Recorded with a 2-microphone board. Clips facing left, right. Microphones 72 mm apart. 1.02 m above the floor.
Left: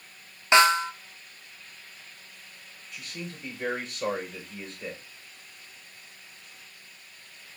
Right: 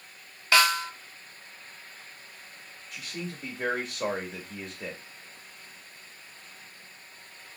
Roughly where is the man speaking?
Right.